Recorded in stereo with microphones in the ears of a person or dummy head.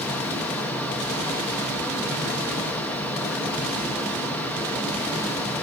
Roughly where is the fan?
Centre.